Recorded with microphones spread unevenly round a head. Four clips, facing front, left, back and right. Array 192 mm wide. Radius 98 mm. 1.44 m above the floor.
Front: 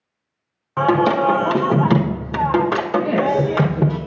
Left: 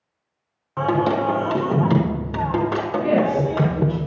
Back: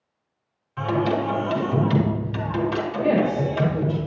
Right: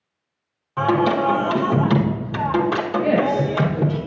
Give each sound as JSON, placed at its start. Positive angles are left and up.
{"t": 0.8, "sound": "singing", "azimuth_deg": 5, "distance_m": 0.8}
{"t": 3.0, "sound": "a woman speaking", "azimuth_deg": -170, "distance_m": 3.0}